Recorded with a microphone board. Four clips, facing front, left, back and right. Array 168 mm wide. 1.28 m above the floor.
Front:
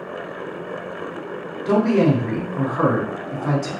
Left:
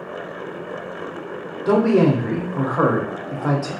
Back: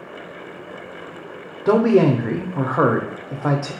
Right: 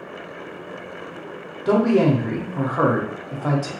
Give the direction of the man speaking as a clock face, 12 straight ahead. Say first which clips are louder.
Left 1 dB, back 2 dB; 6 o'clock.